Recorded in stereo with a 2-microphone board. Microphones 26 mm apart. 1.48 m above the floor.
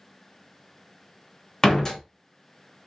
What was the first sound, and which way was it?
A door slam, 20° left (ahead or behind).